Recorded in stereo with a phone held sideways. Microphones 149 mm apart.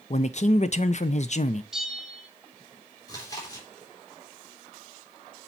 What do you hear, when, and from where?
0.1 s a man speaking: 50° left (ahead or behind), 0.6 m
1.7 s a bell: 5° right (ahead or behind), 1.6 m
3.1 s chewing: 25° left (ahead or behind), 3 m